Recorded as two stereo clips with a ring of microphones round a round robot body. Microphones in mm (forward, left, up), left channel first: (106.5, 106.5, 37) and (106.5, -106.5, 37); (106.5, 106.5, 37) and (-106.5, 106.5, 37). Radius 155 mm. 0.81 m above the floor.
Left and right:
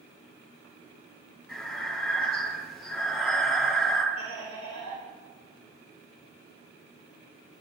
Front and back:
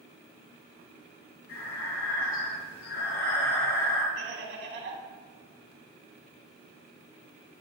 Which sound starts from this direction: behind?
Laughter, at 4.2 s.